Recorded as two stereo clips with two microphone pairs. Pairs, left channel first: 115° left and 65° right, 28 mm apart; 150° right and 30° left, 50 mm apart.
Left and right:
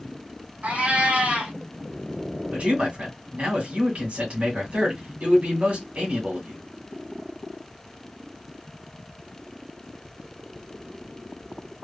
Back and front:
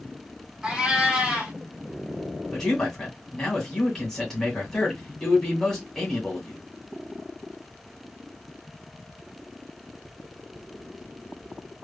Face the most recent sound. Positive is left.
turn(degrees=-70)